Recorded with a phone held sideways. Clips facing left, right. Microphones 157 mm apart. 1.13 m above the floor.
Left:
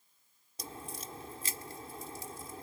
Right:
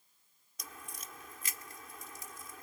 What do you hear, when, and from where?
0.6 s a crack: 35° left (ahead or behind)